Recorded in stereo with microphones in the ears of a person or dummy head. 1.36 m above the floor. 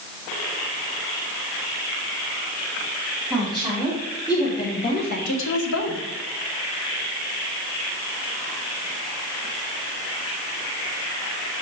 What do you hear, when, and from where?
3.3 s a woman speaking: centre (ahead or behind), 2.5 m; by 6.0 s 80° left, 1.3 m